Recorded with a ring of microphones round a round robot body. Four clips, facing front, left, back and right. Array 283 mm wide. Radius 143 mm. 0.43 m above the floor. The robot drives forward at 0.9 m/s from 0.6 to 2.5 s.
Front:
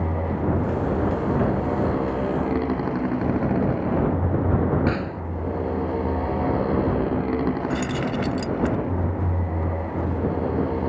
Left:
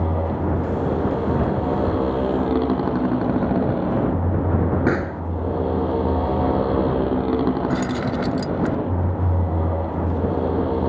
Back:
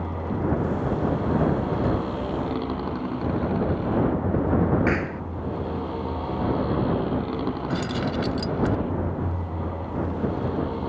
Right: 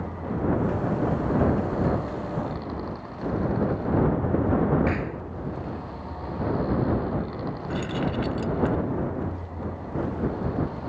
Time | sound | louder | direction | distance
0.0 | a motorcycle | left 5 dB, front 2 dB | 70° left | ?
4.9 | a pop | left 6 dB, even | 100° left | ?
7.7 | keys jangling | left 6 dB, front 2 dB | 80° left | ?